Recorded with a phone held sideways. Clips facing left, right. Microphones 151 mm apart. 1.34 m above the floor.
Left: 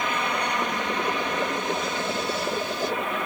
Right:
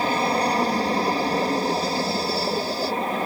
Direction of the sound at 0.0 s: 35° right (ahead or behind).